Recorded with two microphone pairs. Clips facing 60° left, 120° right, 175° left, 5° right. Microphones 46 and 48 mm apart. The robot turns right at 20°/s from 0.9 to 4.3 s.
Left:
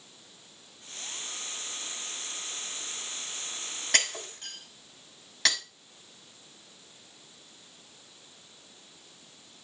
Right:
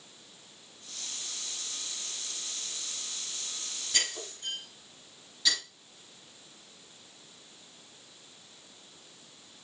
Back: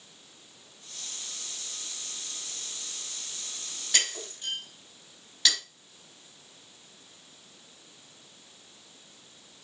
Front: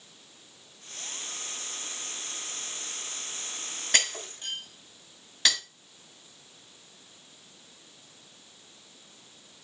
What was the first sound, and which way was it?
Breaking glass, 35° left.